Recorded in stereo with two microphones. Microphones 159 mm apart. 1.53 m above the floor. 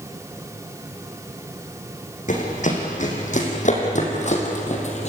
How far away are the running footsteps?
About 5 m.